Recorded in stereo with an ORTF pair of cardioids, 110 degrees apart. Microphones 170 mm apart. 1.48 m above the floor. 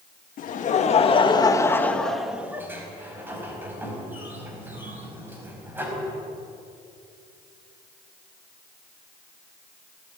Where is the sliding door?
10° right, 5 m.